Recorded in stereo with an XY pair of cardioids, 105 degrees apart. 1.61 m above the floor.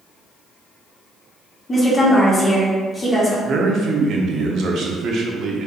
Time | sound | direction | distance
1.7 | a woman speaking | 30° left | 1.7 m
3.5 | a man speaking | 60° right | 0.8 m